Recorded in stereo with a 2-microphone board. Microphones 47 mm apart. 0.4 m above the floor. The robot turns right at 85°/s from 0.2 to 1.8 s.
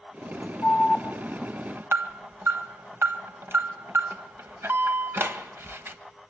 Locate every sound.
0.6 s an alarm: 30° left (ahead or behind), 1.5 m; by 6.0 s 60° right (ahead or behind), 1.5 m